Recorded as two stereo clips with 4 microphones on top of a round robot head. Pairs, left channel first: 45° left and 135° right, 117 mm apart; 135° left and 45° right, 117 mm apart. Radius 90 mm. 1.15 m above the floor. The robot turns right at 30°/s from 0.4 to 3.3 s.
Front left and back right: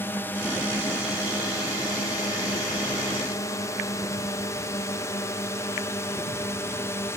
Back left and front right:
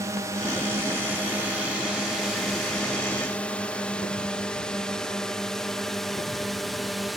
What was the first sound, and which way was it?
A drone, 10° right.